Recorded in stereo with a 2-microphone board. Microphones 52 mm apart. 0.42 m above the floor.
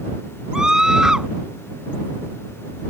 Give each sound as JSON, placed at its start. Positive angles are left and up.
{"t": 0.5, "sound": "a scream", "side_deg": -15}